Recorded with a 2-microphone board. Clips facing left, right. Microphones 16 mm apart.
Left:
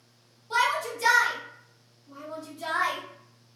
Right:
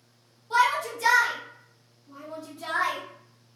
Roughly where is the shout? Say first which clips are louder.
Right 2 dB; centre.